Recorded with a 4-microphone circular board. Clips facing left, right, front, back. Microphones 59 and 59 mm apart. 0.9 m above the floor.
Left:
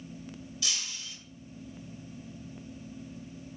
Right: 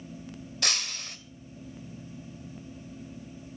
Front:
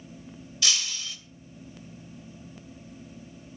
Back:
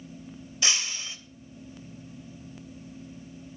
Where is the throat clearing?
No throat clearing in this recording.